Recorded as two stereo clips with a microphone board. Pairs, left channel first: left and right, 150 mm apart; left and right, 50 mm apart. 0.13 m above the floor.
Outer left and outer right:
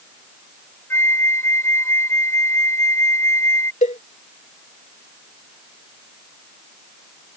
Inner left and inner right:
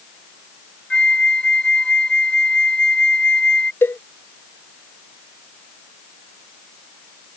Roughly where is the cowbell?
Left.